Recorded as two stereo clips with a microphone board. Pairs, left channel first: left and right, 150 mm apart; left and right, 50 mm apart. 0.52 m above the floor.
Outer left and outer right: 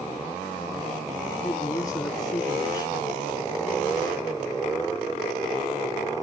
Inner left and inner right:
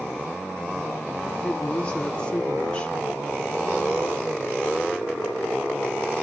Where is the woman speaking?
20° left (ahead or behind), 0.8 m.